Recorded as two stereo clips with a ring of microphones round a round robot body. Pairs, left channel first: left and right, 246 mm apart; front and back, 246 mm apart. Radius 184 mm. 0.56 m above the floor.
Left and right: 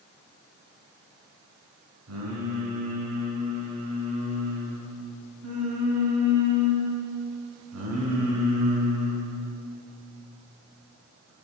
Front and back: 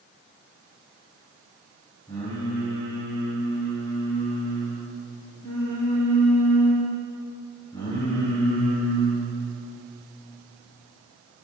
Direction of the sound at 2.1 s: 75° right.